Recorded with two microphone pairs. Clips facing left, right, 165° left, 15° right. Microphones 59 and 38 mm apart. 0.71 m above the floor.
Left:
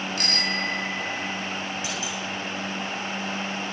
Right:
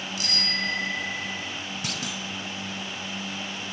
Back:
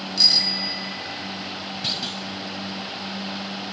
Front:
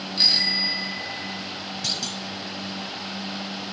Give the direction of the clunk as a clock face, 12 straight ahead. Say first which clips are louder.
Left 2 dB, back 2 dB; 4 o'clock.